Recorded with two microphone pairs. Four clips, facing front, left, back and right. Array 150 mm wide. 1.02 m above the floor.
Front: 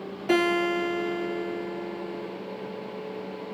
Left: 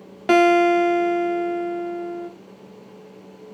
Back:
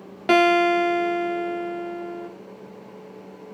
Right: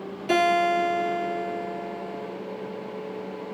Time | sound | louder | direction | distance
0.3 | a guitar | left 6 dB, back 6 dB | 130° left | 0.8 m